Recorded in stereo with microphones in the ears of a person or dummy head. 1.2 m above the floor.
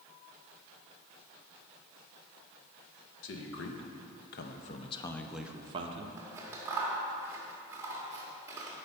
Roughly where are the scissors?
Centre.